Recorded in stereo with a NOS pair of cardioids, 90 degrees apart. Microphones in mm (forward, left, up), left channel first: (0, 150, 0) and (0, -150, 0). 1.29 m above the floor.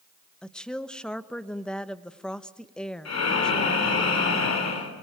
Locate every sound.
0.4 s a woman speaking: 5° left, 1.0 m
3.0 s breathing: 55° left, 3.5 m